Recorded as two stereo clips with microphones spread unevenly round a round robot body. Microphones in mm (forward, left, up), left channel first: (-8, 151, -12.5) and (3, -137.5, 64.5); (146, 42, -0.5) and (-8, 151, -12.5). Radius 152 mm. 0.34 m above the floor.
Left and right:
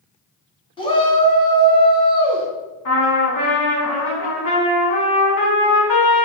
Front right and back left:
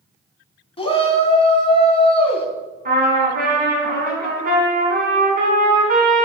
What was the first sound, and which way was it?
A shout, 25° left.